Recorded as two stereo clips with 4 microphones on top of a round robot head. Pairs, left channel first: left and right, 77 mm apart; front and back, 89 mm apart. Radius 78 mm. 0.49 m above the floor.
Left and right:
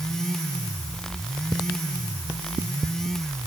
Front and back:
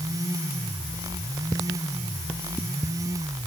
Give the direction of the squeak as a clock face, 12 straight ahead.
No squeak in this recording.